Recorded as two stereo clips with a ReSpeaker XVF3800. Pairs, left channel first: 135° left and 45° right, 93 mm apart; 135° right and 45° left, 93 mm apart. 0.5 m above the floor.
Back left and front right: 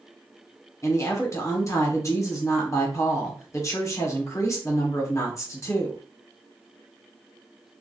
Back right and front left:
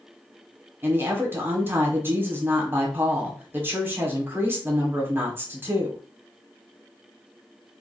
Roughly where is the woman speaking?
Left.